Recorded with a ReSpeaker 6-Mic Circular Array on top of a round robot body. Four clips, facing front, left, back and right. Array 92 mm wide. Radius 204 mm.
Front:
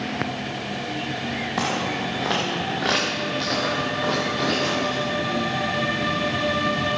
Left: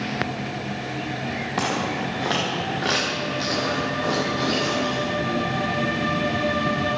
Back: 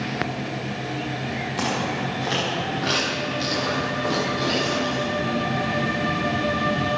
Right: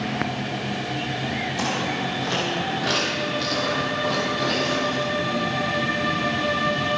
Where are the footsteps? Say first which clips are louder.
Left 3 dB, even; 50° left, 4.5 m; by 5.0 s 15° left, 5.5 m.